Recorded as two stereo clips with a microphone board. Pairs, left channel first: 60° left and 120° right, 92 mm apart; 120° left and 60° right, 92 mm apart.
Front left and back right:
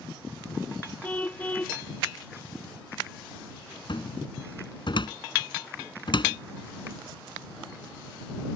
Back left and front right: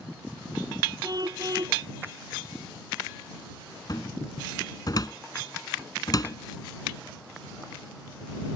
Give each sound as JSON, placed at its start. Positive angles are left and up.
{"t": 1.0, "sound": "a car horn", "azimuth_deg": -15}
{"t": 3.9, "sound": "a cupboard door", "azimuth_deg": 80}